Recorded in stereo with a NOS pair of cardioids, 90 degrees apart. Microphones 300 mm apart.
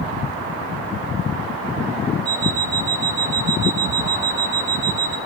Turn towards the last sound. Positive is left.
turn(degrees=-25)